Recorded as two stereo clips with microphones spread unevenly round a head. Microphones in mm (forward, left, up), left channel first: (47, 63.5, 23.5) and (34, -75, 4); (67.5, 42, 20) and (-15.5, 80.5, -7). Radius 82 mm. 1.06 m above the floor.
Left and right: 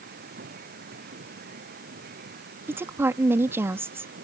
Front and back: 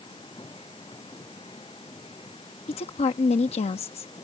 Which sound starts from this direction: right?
A machine running, at 0.0 s.